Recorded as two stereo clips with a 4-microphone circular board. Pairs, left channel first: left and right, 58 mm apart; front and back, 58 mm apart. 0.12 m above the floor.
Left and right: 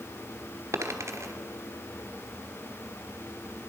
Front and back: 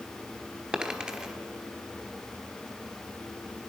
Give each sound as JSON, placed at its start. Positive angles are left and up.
{"t": 0.7, "sound": "a dropped coin", "azimuth_deg": -110, "distance_m": 1.0}